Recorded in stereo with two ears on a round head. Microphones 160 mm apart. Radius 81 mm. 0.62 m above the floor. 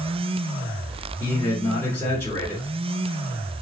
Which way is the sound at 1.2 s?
15° left (ahead or behind).